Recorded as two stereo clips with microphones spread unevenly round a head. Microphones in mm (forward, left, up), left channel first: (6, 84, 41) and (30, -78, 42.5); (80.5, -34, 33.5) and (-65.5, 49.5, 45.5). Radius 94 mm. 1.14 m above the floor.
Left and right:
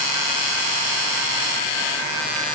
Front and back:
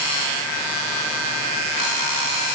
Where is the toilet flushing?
No toilet flushing in this recording.